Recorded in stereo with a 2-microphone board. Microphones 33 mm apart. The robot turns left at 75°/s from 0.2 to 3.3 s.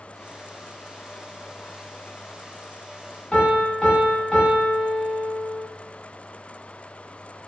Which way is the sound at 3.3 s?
25° left (ahead or behind).